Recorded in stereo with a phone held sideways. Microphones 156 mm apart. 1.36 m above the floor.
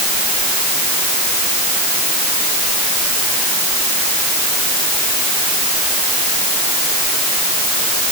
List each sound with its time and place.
Only background noise.